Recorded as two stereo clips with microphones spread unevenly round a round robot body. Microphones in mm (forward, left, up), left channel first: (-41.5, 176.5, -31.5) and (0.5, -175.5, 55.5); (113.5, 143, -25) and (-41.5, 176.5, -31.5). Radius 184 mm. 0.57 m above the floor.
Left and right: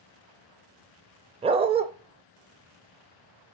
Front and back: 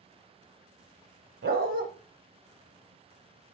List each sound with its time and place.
1.4 s a dog barking: 155° right, 0.6 m